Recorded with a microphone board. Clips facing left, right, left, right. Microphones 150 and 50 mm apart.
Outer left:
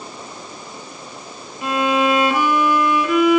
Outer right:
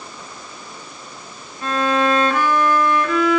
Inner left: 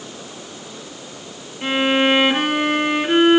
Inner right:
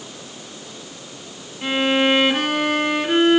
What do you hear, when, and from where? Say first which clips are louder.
1.6 s a violin: outer left 1 dB, inner left 1 dB; 10° left (ahead or behind), 3 m